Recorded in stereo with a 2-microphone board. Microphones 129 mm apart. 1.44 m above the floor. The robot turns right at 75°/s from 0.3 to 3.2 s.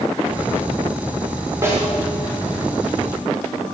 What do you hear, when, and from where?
1.6 s a snare drum: 25° right (ahead or behind), 6 m; by 1.9 s 5° right (ahead or behind), 6 m